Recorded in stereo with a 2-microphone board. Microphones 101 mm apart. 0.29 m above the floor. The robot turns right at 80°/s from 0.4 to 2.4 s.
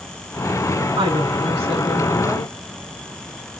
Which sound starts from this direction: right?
A woman speaking, at 1.0 s.